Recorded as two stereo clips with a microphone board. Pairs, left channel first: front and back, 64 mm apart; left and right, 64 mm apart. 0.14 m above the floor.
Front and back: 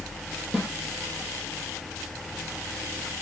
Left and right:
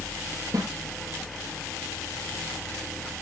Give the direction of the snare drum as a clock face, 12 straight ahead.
3 o'clock.